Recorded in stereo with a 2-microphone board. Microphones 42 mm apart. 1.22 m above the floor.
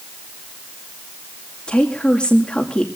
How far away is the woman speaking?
About 2.5 m.